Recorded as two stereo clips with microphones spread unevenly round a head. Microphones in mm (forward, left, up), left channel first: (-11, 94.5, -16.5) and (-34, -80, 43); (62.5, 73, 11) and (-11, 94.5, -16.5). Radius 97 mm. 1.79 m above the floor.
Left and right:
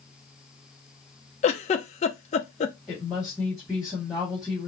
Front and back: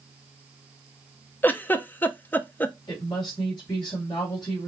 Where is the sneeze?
No sneeze in this recording.